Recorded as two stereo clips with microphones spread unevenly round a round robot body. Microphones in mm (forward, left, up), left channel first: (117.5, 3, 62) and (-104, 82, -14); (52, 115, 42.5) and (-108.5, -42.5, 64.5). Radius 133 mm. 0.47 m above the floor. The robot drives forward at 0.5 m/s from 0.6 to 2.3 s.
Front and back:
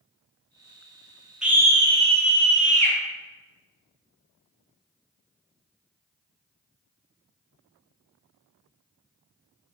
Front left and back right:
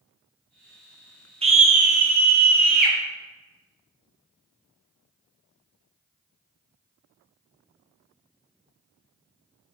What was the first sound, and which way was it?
A scream, 175° right.